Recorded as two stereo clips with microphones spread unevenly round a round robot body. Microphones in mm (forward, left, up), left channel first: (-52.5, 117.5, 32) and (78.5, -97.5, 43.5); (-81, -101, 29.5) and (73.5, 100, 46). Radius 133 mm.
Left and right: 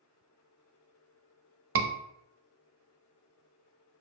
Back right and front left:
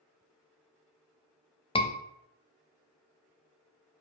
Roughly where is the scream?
Ahead right.